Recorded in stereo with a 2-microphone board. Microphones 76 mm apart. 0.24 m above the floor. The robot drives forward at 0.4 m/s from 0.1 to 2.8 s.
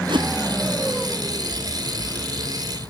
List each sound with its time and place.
0.1 s a whoosh: 75° right (ahead or behind); by 0.3 s 70° right (ahead or behind)